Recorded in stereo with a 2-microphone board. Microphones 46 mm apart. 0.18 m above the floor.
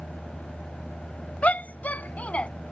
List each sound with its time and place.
1.4 s a shout: 35° left (ahead or behind); by 2.5 s 30° left (ahead or behind)